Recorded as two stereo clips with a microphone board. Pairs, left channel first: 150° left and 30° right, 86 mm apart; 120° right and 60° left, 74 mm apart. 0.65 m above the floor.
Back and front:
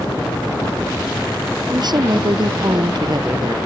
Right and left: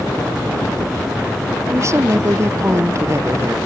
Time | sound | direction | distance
1.7 | a woman speaking | 5° left | ?